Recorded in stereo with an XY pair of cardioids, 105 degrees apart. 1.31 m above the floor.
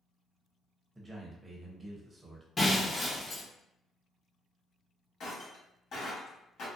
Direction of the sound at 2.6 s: 30° left.